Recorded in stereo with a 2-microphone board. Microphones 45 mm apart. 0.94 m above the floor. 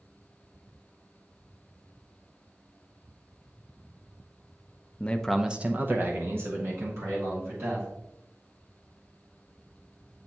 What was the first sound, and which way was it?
A man speaking, 30° left (ahead or behind).